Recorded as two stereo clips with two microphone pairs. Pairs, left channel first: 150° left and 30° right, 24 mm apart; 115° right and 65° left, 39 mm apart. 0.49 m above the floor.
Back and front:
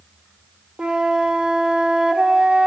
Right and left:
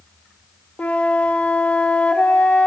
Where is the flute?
70° right, 1.4 m.